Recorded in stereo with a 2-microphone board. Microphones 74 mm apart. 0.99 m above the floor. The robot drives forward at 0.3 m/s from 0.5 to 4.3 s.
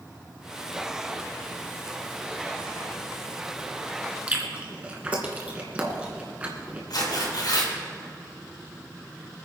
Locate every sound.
4.3 s chewing: 20° right (ahead or behind), 2 m
6.9 s tearing paper: 75° left (ahead or behind), 4.5 m